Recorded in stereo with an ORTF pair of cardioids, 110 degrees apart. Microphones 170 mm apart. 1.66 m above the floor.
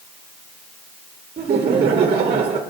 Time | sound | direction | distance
1.4 | laughter | 35° right | 0.9 m